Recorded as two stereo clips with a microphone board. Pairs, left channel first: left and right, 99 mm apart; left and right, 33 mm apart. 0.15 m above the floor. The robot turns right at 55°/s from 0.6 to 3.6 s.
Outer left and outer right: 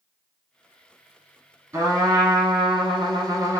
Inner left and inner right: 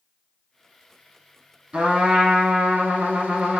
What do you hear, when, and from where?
1.7 s a trumpet: 145° right, 1.4 m; by 3.6 s 40° right, 1.4 m